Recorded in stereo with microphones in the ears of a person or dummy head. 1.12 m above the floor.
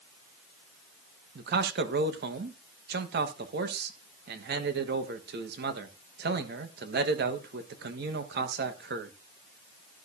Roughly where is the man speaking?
Right.